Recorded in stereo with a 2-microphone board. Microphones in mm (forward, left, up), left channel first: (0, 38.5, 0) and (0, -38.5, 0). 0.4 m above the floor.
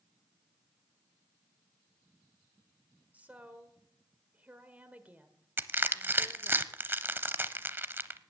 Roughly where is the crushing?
Right.